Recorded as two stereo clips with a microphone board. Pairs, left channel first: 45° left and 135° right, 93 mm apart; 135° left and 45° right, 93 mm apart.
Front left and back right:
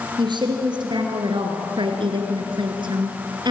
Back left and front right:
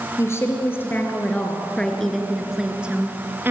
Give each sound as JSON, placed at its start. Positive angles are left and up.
{"t": 0.2, "sound": "a woman speaking", "azimuth_deg": -165, "distance_m": 4.0}